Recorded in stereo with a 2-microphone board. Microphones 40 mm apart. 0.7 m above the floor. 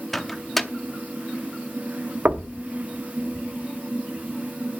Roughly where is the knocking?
Right.